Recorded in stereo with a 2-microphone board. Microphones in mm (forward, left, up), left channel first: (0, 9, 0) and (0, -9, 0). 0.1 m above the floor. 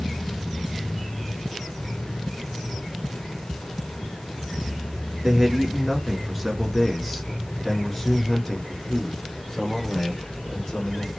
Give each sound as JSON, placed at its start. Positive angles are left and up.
{"t": 5.2, "sound": "a man speaking", "side_deg": -20, "distance_m": 1.9}